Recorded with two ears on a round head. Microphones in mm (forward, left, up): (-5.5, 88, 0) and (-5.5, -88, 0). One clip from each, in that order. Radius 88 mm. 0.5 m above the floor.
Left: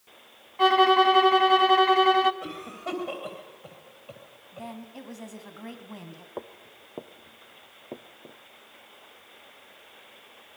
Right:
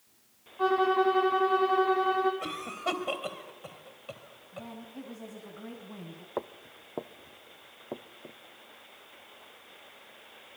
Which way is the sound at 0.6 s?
65° left (ahead or behind).